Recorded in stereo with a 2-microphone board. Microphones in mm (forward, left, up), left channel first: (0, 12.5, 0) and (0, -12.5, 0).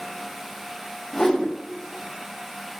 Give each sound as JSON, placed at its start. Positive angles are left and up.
{"t": 1.1, "sound": "a whoosh", "side_deg": 20, "distance_m": 0.7}